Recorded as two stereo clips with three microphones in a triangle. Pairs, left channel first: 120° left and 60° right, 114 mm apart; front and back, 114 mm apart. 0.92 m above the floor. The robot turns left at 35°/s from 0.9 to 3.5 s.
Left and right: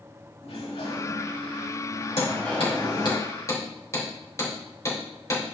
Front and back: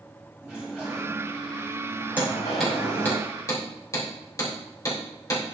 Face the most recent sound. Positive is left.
turn(degrees=60)